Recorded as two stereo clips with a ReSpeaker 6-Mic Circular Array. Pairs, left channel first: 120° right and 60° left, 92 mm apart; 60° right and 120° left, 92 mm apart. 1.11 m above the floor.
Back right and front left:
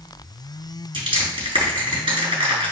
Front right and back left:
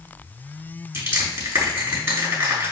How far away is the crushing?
About 4 m.